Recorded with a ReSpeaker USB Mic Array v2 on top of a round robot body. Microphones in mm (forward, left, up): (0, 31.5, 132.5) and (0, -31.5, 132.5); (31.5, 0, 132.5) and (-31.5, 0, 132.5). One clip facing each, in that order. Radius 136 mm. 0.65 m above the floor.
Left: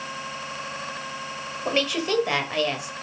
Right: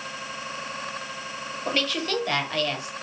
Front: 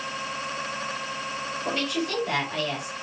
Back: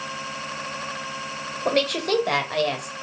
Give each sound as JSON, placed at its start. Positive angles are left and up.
{"t": 1.6, "sound": "a woman speaking", "azimuth_deg": 165, "distance_m": 1.1}